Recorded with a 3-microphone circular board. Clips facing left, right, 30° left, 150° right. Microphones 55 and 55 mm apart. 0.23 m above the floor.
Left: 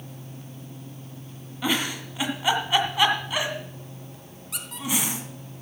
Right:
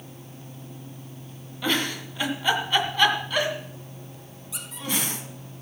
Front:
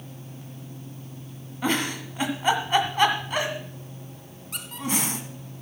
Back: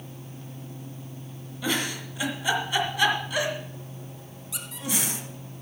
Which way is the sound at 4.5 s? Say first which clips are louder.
Left 3 dB, front 4 dB; 65° left.